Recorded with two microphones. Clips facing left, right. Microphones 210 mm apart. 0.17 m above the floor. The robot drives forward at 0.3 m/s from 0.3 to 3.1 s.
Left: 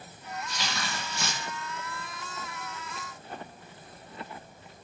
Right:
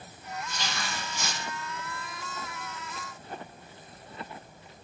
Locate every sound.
0.5 s tearing paper: 80° left, 2 m